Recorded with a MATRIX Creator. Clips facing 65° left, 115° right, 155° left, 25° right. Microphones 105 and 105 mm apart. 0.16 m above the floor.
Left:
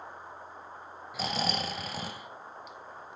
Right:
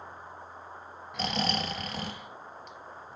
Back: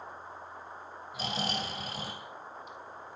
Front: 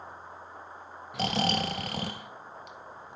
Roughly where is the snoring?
Ahead.